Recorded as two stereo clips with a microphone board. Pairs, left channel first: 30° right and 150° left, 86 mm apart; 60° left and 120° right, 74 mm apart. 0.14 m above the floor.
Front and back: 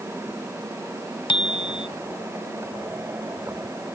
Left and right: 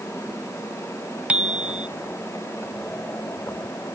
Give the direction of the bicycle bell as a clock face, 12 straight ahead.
2 o'clock.